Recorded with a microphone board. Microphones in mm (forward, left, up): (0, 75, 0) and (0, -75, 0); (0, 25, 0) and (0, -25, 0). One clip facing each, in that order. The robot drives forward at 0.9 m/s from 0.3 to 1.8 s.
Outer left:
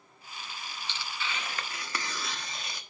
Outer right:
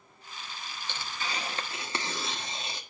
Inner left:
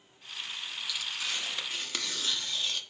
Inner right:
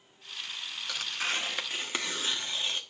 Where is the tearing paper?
50° right (ahead or behind), 0.6 m; by 2.8 s 25° right (ahead or behind), 1.1 m.